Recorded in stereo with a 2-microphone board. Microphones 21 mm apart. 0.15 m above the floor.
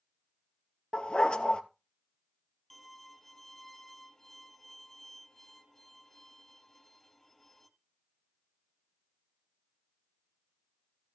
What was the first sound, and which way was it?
A dog barking, 50° left (ahead or behind).